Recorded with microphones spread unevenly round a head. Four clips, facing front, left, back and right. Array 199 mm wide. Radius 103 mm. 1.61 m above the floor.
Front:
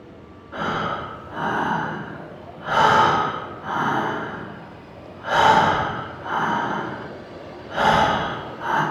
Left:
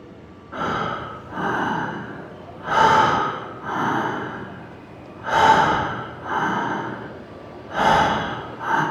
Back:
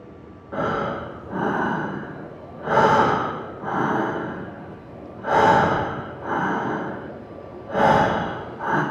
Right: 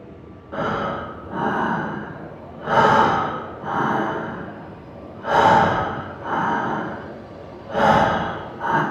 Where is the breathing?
155° right, 0.6 m.